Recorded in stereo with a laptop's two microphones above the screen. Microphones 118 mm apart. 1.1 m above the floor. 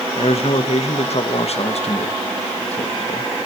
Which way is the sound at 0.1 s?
65° left (ahead or behind).